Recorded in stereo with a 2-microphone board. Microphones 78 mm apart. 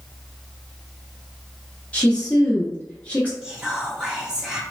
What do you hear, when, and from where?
1.9 s a woman speaking: 20° left (ahead or behind), 0.6 m
3.4 s whispering: 10° right (ahead or behind), 0.9 m